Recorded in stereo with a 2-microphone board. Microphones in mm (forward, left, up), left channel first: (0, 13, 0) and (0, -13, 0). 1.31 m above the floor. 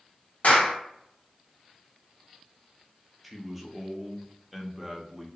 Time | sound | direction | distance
0.4 | a clap | 75° left (ahead or behind) | 1.4 m
3.2 | a man speaking | 5° right (ahead or behind) | 0.6 m